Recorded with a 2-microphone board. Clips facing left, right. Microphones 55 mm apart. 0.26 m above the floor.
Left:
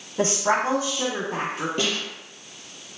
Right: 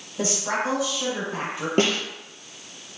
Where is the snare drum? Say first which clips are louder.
Right 8 dB; 55° right (ahead or behind), 1.4 m.